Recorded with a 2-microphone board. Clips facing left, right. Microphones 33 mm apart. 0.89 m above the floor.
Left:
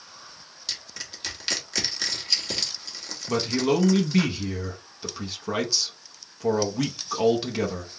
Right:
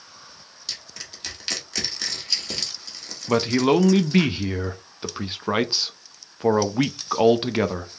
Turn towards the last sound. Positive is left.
turn(degrees=-35)  # may be behind; listen again after turning